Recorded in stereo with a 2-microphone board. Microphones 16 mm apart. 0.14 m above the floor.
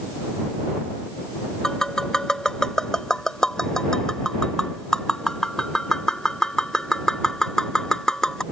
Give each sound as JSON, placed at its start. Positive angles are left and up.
{"t": 1.6, "sound": "tapping", "side_deg": 40}